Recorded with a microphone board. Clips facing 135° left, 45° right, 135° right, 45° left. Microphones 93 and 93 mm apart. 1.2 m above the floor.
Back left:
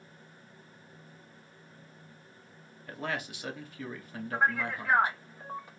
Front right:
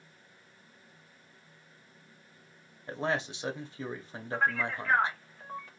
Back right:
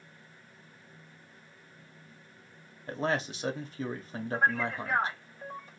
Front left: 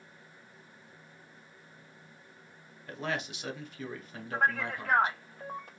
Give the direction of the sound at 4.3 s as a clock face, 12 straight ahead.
10 o'clock.